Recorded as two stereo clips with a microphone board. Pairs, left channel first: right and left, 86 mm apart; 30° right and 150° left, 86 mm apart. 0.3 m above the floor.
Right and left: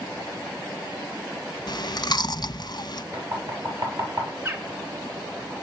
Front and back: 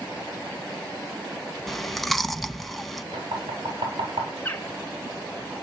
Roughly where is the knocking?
Behind left.